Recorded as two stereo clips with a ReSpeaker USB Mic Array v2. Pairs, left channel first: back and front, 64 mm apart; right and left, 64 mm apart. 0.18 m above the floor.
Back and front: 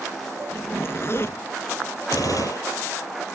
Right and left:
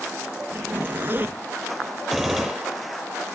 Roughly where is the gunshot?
Behind.